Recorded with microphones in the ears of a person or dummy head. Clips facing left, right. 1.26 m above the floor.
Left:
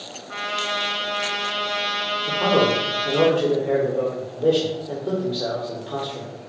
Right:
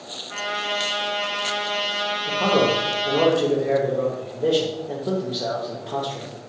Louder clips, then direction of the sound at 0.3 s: Right 1 dB; 50° left (ahead or behind).